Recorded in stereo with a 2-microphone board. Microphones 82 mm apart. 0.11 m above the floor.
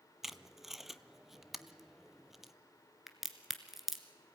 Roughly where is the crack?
Centre.